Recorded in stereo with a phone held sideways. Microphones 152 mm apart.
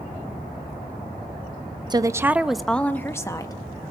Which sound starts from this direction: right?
A woman speaking, at 1.9 s.